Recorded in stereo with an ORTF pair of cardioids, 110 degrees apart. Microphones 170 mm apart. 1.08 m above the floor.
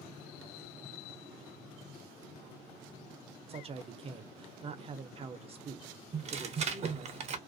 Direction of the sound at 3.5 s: 35° right.